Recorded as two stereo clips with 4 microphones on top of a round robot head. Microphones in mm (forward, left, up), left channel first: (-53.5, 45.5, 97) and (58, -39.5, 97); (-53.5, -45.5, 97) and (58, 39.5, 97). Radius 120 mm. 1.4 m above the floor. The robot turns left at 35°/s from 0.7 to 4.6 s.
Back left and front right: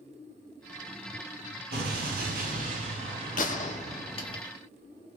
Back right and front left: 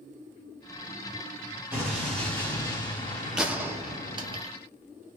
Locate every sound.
1.7 s an explosion: 40° right, 1.9 m; by 4.4 s 135° right, 1.9 m
3.4 s a gunshot: 125° left, 0.9 m; by 4.5 s 80° left, 0.9 m